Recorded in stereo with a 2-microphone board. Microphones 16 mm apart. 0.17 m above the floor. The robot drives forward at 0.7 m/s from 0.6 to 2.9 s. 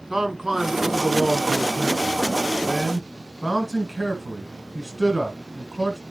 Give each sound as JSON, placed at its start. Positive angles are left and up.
{"t": 0.1, "sound": "a man speaking", "side_deg": -30, "distance_m": 1.5}